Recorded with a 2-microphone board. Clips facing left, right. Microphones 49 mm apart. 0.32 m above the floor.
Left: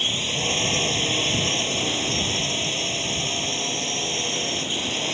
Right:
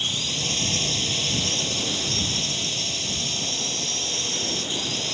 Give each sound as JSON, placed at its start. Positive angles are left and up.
{"t": 0.0, "sound": "a drone", "side_deg": 35}